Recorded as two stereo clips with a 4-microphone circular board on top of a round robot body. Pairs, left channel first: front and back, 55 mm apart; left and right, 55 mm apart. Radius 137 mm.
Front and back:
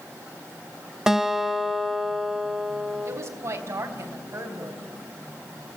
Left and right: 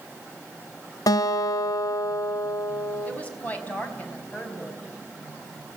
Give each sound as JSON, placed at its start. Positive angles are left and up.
{"t": 1.1, "sound": "a guitar", "azimuth_deg": 100, "distance_m": 1.4}
{"t": 3.0, "sound": "a woman speaking", "azimuth_deg": 150, "distance_m": 4.5}